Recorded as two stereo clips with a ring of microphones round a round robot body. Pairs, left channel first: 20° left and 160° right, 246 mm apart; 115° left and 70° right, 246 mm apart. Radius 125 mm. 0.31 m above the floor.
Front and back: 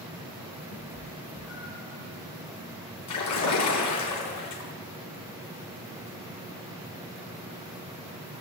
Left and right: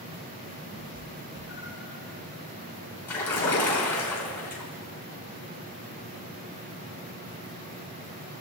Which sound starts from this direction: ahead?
A cat meowing, at 0.7 s.